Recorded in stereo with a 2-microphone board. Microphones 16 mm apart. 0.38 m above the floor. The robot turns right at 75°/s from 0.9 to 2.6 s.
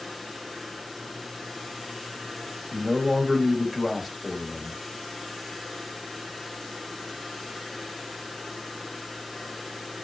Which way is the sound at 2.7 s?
Centre (ahead or behind).